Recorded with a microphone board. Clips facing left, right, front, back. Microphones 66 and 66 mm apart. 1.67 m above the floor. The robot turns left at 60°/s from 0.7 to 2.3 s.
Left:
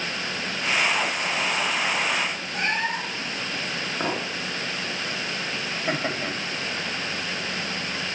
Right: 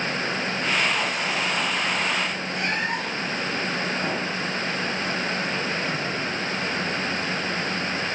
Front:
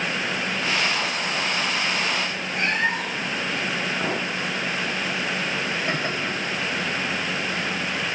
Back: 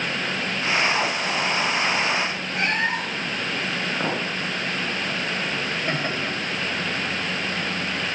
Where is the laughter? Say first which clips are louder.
Even, even; 110° left, 2.5 m.